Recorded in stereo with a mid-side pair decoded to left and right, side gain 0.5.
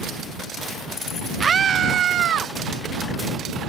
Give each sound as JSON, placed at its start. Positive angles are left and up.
{"t": 1.4, "sound": "a scream", "azimuth_deg": -35}